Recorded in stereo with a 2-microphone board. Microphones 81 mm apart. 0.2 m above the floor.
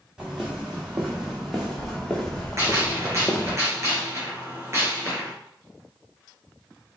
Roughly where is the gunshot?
Right.